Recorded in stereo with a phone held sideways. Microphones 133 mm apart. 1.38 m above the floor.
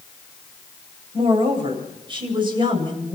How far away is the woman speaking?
About 7.5 m.